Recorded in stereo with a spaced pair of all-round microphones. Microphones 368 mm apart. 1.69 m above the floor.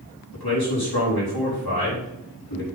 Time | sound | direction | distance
0.3 | a man speaking | 80° left | 4.5 m